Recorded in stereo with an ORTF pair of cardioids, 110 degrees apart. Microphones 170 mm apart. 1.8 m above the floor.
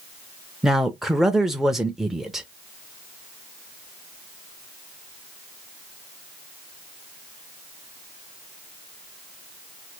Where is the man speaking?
Straight ahead, 0.5 m.